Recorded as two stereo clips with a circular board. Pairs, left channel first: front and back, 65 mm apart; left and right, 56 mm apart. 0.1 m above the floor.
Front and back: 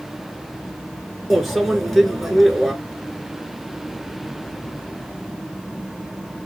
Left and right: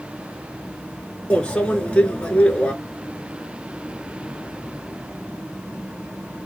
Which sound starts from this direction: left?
A microwave, at 1.3 s.